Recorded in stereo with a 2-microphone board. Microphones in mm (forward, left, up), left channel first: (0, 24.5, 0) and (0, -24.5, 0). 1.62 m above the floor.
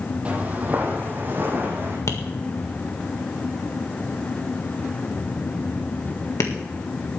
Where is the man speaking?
I don't hear a man speaking.